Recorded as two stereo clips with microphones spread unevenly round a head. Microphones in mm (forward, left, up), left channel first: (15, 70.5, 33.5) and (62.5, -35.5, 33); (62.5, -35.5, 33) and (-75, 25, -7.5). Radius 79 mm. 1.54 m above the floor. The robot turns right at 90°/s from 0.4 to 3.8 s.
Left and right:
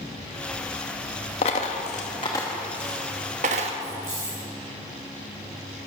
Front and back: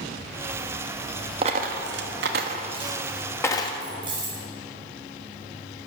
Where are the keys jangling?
140° right, 5.5 m.